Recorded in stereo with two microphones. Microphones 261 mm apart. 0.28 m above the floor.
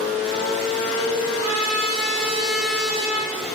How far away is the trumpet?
About 6 m.